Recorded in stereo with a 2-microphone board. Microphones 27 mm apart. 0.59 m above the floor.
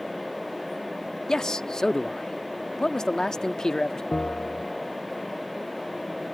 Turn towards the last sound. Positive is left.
turn(degrees=50)  # may be behind; listen again after turning